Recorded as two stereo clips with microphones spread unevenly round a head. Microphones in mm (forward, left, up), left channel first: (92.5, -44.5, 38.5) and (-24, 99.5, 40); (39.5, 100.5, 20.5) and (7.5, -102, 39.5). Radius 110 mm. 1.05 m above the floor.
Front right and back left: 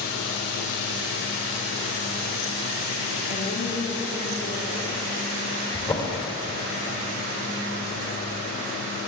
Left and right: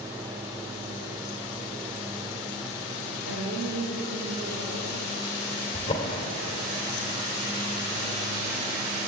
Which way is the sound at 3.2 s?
65° right.